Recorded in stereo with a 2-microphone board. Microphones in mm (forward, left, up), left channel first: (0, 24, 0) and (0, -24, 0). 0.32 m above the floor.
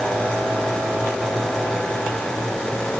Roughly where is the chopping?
I don't hear chopping.